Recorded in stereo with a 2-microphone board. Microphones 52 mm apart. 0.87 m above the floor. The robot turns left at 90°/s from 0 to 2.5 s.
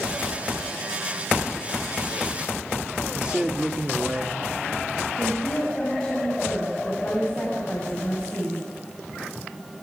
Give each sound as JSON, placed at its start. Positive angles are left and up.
{"t": 3.1, "sound": "a man speaking", "side_deg": -25, "distance_m": 1.4}
{"t": 5.2, "sound": "a woman speaking", "side_deg": 20, "distance_m": 6.5}